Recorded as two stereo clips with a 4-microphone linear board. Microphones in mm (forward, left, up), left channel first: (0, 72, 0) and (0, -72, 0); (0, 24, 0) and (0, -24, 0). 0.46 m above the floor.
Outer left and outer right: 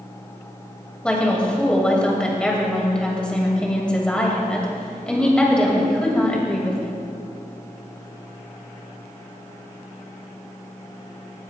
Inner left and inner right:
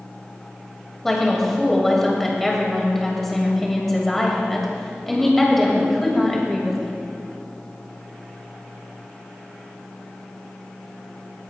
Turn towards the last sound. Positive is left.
turn(degrees=5)  # may be behind; listen again after turning